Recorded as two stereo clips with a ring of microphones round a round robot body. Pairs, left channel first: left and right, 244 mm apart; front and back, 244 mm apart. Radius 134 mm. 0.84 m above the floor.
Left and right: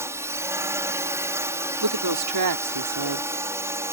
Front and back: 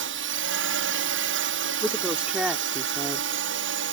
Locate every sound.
0.0 s a drone: 165° right
1.8 s a woman speaking: 95° right